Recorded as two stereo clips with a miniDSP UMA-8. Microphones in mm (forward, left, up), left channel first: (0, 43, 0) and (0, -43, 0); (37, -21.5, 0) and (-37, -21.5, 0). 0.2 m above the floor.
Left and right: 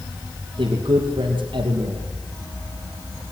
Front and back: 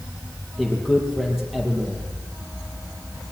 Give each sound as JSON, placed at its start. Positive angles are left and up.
{"t": 0.6, "sound": "a man speaking", "azimuth_deg": -95, "distance_m": 5.5}